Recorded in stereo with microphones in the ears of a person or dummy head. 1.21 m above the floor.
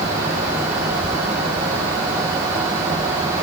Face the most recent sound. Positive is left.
No sound to turn to.